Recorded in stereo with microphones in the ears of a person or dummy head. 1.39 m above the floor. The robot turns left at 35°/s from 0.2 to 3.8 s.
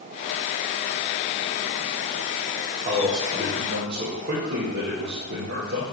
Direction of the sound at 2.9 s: 40° right.